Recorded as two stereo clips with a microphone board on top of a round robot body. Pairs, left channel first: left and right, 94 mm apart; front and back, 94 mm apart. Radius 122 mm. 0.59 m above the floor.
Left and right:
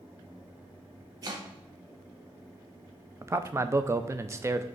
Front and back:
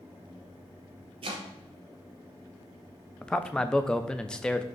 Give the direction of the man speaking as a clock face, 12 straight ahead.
2 o'clock.